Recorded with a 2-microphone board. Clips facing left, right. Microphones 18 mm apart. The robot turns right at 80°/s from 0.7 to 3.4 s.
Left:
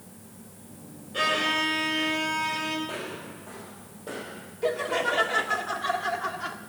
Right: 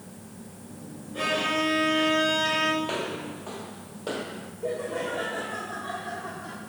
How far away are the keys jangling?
No keys jangling in this recording.